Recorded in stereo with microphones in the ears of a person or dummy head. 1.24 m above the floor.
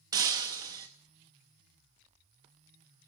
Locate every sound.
0.1 s breaking glass: 25° right (ahead or behind), 0.7 m